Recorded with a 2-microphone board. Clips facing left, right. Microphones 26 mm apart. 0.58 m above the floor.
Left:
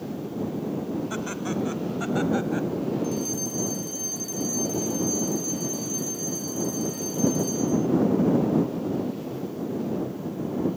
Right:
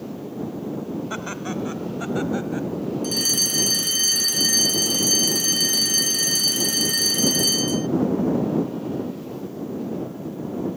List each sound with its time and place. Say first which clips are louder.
1.1 s laughter: even; 15° right (ahead or behind); by 2.7 s 10° left (ahead or behind)
3.0 s a fire alarm: right 6 dB; 70° right (ahead or behind)